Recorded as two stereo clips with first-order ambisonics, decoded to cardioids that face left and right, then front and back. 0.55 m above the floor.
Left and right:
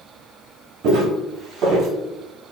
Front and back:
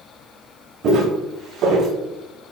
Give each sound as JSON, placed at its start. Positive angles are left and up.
{"t": 0.8, "sound": "footsteps", "azimuth_deg": -125, "distance_m": 1.6}